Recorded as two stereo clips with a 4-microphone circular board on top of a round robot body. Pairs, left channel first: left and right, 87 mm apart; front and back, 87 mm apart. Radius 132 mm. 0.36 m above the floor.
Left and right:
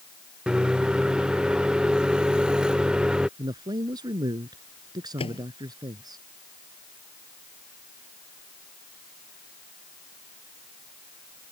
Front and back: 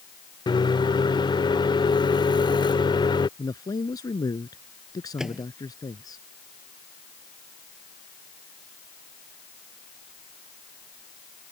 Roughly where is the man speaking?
Ahead right.